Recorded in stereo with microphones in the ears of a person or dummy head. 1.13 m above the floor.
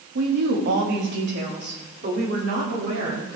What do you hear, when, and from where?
0.1 s a woman speaking: 65° right (ahead or behind), 1.5 m; by 3.4 s 55° right (ahead or behind), 3.5 m